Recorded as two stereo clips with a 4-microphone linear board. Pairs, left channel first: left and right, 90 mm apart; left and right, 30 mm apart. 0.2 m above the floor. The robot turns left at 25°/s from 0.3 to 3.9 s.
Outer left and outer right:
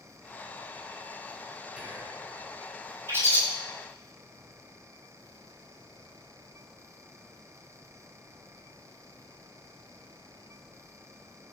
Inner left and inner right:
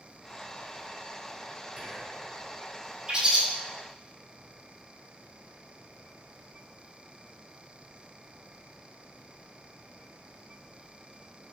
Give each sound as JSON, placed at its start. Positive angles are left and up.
{"t": 1.8, "sound": "whispering", "side_deg": -15, "distance_m": 1.1}
{"t": 3.1, "sound": "a bird", "side_deg": -30, "distance_m": 1.0}